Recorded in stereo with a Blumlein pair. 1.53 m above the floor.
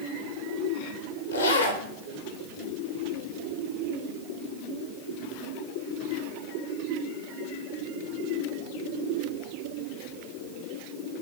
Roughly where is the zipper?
Left.